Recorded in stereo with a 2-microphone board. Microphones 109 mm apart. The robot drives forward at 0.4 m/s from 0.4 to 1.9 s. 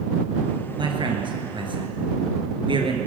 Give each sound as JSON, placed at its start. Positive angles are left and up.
{"t": 0.8, "sound": "a man speaking", "side_deg": -50, "distance_m": 2.5}